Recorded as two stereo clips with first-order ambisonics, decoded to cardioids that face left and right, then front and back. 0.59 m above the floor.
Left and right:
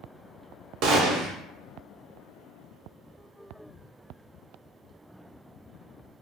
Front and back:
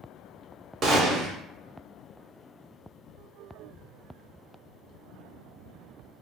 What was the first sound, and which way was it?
A gunshot, 120° right.